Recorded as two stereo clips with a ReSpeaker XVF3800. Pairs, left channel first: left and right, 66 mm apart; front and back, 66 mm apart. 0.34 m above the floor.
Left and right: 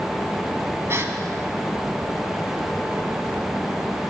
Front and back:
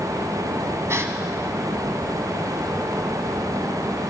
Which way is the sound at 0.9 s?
140° right.